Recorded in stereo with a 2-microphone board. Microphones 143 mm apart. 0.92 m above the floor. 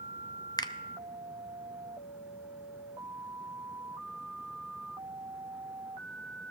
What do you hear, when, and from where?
0.6 s a finger snap: 30° left (ahead or behind), 0.6 m